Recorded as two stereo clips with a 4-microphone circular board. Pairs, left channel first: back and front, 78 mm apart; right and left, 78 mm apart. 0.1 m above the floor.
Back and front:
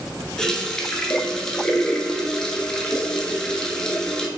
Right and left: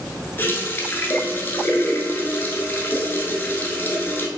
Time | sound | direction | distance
0.4 | a running tap | 110° right | 0.8 m